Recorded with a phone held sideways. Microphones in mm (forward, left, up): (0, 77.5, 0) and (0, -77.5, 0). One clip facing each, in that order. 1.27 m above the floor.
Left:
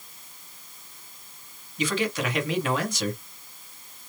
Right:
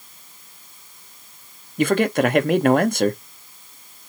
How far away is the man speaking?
About 0.5 m.